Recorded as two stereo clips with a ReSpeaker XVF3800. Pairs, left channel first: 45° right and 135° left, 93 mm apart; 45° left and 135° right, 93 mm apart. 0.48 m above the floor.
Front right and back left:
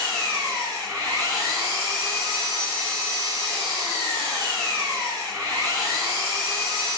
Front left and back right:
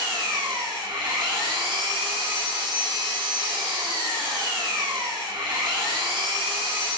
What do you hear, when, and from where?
0.0 s an engine running: 175° right, 2.5 m